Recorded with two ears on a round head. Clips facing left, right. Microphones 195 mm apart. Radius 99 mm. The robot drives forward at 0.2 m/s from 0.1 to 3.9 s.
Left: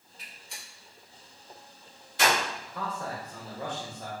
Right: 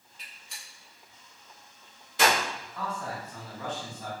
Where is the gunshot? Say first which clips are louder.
Left 3 dB; 60° right (ahead or behind), 2.0 m; by 2.4 s 70° right (ahead or behind), 1.8 m.